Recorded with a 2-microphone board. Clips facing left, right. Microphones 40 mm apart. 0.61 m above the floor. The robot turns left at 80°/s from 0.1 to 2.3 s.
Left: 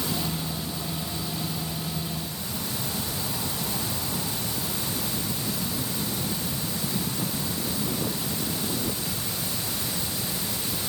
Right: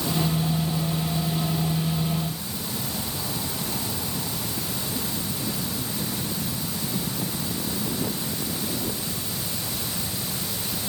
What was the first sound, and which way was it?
Only background noise.